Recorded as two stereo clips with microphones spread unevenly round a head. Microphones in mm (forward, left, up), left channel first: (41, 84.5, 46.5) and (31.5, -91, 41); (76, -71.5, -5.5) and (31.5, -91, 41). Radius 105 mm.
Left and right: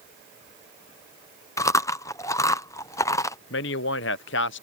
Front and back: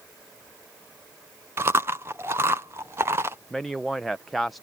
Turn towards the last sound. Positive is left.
turn(degrees=120)